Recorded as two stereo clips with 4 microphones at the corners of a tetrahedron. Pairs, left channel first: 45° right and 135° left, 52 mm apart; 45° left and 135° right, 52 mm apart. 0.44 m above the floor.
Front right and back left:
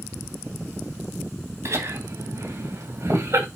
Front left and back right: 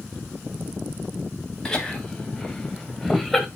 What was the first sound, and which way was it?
Laughter, 120° left.